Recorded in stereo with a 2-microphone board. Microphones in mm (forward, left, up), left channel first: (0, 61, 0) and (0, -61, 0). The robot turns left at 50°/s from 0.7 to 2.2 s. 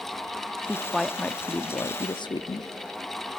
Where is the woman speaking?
165° right, 0.7 m; by 2.7 s 120° left, 0.7 m.